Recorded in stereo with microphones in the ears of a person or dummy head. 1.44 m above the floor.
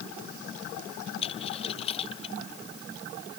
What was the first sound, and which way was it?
A dropped coin, 40° left (ahead or behind).